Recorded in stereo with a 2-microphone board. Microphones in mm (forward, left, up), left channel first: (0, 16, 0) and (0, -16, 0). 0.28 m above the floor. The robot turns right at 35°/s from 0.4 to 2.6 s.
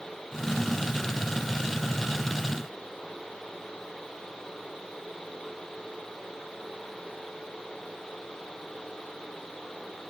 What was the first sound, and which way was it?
Only background noise.